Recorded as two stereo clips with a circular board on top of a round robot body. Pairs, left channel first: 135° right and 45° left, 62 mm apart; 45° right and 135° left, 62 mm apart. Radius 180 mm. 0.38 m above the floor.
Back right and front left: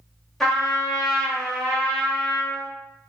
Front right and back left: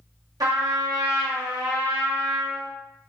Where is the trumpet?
140° left, 1.0 m.